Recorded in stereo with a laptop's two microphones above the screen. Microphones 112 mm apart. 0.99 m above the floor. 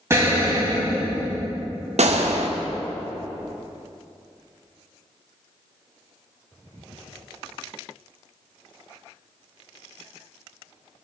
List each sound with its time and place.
0.1 s an explosion: 25° right (ahead or behind), 1.4 m
2.0 s a gunshot: 75° right (ahead or behind), 0.8 m